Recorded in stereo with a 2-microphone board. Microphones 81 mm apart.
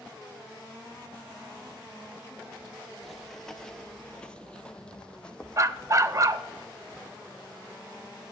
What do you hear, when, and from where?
3.0 s running footsteps: centre (ahead or behind), 0.7 m; by 6.6 s 10° left (ahead or behind), 2 m
5.6 s a dog barking: 40° right (ahead or behind), 0.5 m